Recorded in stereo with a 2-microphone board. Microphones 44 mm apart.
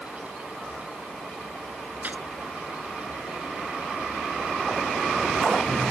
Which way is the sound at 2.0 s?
40° right (ahead or behind).